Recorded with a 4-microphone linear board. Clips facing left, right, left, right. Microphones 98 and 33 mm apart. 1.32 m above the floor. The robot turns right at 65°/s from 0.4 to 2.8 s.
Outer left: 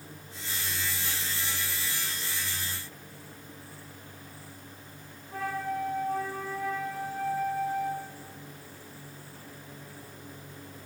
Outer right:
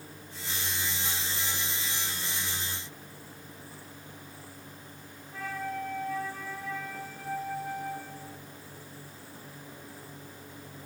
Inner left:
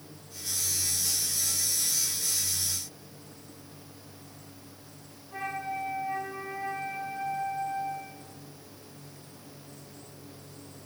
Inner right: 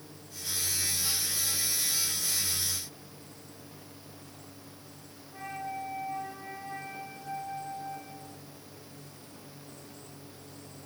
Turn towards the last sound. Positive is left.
turn(degrees=50)  # may be behind; listen again after turning